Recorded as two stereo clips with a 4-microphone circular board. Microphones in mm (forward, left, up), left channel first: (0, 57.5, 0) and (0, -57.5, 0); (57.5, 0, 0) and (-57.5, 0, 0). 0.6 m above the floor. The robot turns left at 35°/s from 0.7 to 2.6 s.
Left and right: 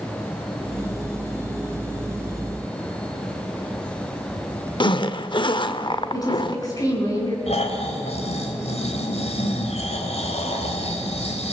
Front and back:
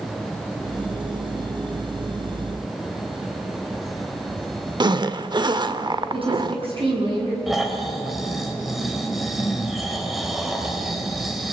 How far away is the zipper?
About 0.8 m.